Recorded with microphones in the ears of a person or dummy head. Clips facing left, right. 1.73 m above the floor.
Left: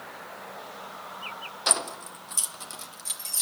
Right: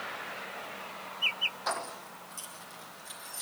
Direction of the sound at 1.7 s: 40° left (ahead or behind).